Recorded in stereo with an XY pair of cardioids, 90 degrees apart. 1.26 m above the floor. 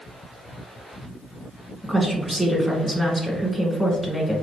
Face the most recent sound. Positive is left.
turn(degrees=-5)